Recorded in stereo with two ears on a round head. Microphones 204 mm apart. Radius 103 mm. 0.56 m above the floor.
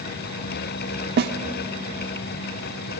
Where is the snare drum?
45° right (ahead or behind), 1.1 m.